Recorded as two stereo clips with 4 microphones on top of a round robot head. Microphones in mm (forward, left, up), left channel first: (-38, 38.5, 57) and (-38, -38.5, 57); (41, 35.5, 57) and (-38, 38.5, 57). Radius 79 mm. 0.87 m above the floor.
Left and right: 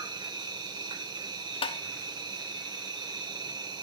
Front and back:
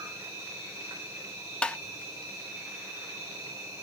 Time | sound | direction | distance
0.0 | an insect | 120° right | 1.9 m
1.6 | tapping | 75° left | 0.6 m